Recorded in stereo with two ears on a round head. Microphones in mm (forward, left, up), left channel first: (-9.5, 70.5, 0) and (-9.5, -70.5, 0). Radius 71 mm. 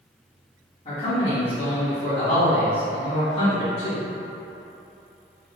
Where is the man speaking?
35° left (ahead or behind), 1.6 m.